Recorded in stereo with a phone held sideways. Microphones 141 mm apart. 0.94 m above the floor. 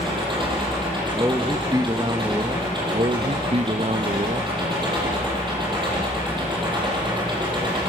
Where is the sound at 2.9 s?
50° right (ahead or behind), 0.9 m.